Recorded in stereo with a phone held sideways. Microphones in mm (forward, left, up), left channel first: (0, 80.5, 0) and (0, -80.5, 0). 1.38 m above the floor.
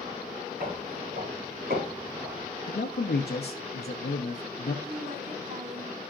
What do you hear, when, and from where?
0.6 s footsteps: 65° right (ahead or behind), 5.5 m; by 2.5 s 70° right (ahead or behind), 4.5 m
2.7 s a man speaking: 90° left, 0.8 m
4.8 s a woman speaking: 90° right, 4.5 m